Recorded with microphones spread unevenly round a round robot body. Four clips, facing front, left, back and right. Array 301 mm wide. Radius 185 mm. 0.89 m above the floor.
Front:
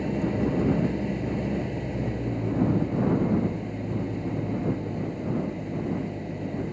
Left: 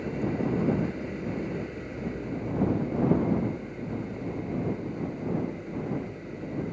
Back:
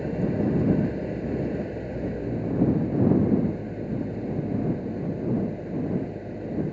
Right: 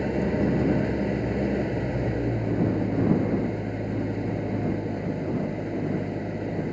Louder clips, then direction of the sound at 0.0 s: Right 5 dB, even; 70° right.